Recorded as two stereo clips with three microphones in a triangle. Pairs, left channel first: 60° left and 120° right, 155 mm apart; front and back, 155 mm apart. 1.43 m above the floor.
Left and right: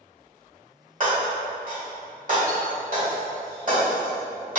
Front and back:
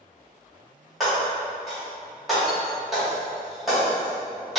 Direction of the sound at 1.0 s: 90° right.